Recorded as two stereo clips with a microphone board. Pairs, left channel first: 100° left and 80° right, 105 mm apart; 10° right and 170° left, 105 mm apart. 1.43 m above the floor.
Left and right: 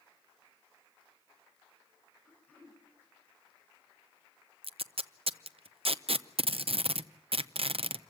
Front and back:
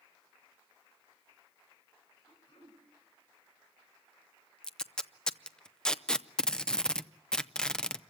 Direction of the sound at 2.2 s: 25° left.